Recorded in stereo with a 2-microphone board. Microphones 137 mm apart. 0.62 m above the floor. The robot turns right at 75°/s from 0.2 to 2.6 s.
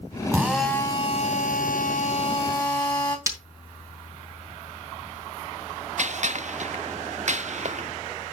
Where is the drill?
20° right, 3 m; by 3.2 s 150° left, 3 m.